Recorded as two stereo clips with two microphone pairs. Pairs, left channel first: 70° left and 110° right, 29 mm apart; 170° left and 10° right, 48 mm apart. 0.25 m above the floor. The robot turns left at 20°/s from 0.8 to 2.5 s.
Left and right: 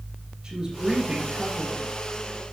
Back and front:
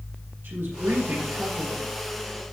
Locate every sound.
0.4 s a woman speaking: 45° right, 4 m; by 1.9 s 65° right, 4 m